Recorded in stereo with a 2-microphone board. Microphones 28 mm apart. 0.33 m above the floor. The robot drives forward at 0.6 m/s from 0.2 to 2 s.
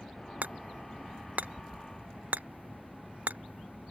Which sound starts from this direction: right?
Hammering, at 0.4 s.